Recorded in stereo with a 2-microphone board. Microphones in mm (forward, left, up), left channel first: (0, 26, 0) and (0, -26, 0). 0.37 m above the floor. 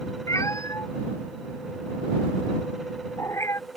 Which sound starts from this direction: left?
A cat meowing, at 0.3 s.